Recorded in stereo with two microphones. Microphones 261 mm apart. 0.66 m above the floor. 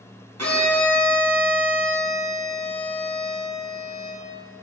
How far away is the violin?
About 2.5 m.